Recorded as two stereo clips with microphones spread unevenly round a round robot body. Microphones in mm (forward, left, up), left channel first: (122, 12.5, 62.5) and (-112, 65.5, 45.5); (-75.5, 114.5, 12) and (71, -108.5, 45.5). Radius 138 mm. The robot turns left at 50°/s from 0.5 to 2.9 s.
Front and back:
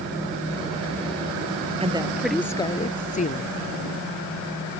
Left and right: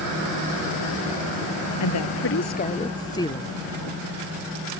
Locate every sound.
1.8 s a woman speaking: 100° left; by 3.5 s 45° left